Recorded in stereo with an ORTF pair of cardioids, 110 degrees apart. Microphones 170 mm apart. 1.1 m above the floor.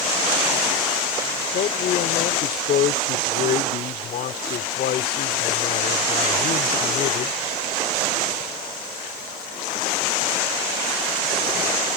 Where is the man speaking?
55° left.